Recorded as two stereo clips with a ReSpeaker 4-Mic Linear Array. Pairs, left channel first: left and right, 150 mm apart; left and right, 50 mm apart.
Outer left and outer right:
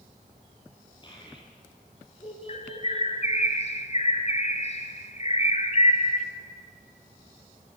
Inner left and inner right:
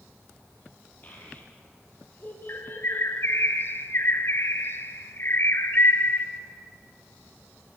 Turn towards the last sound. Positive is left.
turn(degrees=45)  # may be behind; listen again after turning